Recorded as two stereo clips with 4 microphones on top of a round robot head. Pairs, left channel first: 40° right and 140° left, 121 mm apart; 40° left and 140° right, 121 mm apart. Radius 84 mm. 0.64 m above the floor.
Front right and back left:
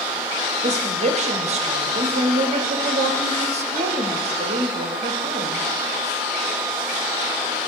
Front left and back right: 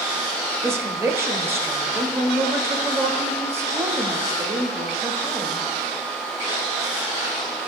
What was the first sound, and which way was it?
A woman speaking, 155° left.